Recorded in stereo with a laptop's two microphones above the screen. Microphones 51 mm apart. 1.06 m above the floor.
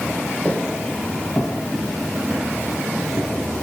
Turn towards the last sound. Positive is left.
turn(degrees=-45)  # may be behind; listen again after turning